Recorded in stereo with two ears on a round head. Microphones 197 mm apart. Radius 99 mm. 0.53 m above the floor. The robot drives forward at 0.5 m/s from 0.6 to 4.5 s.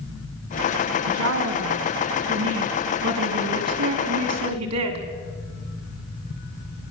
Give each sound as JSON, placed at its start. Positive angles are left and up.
{"t": 1.1, "sound": "a woman speaking", "side_deg": -65, "distance_m": 4.5}